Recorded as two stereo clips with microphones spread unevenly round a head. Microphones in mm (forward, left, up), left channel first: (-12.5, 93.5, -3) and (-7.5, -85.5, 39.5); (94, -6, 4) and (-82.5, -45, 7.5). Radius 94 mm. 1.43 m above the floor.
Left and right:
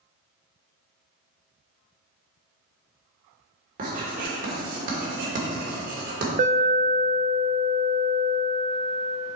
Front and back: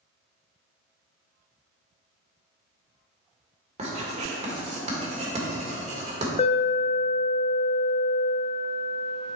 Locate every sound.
3.8 s writing: 115° right, 1.9 m
6.4 s an alarm: 35° right, 0.8 m